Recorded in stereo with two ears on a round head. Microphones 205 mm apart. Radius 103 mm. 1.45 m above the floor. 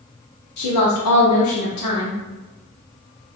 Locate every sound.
0.6 s a woman speaking: 85° left, 0.8 m